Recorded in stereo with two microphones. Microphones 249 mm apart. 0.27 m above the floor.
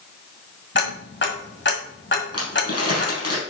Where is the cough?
No cough in this recording.